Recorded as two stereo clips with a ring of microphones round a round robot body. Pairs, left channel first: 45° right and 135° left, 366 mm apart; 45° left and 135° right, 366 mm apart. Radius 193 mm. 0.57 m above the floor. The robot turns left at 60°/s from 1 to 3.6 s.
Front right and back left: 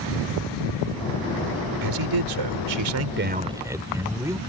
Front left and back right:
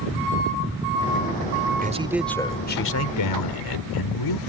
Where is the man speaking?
160° left; by 4.4 s 55° left.